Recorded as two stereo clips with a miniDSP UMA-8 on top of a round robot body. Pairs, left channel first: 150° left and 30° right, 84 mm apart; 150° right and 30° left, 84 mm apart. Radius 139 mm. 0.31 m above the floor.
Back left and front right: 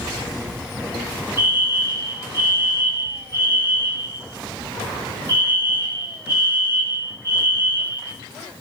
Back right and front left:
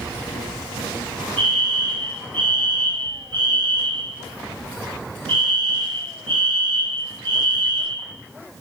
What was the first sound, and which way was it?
A fire alarm, 25° left.